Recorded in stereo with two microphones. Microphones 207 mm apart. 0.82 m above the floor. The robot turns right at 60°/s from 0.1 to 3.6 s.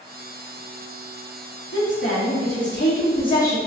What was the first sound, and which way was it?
A woman speaking, 60° left.